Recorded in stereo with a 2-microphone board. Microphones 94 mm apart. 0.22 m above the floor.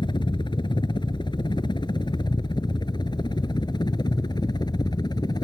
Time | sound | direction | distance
0.0 | a helicopter | 50° left (ahead or behind) | ?